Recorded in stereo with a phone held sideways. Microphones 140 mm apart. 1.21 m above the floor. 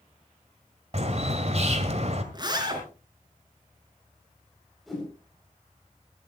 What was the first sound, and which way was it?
A bird, 50° right (ahead or behind).